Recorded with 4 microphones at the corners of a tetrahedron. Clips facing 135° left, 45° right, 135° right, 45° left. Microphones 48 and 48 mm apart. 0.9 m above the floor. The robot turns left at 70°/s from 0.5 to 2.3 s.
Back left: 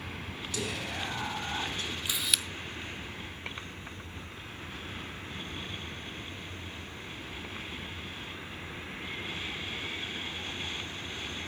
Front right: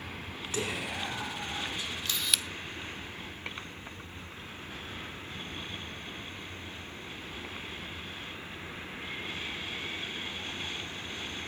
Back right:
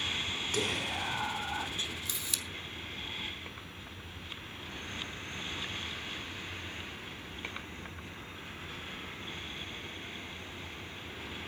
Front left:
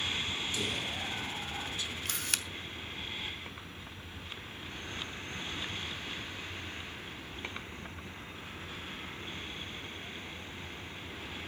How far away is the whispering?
About 3 m.